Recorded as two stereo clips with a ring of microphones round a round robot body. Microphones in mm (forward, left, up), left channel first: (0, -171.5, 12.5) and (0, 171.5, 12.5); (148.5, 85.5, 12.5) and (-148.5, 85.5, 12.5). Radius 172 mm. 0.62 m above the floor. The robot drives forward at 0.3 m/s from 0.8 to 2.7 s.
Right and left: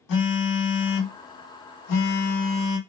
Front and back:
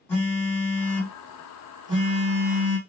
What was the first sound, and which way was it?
A phone buzzing, 80° right.